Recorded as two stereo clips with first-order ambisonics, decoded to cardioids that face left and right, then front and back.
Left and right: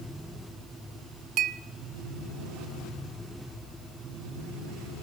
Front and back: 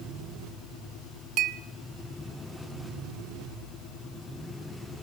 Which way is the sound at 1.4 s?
135° right.